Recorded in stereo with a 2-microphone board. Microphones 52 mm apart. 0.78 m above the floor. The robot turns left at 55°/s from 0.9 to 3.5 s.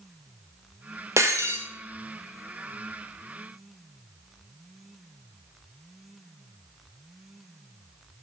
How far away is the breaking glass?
About 0.8 m.